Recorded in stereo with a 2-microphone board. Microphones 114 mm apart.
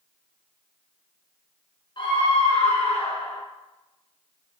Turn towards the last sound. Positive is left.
turn(degrees=55)  # may be behind; listen again after turning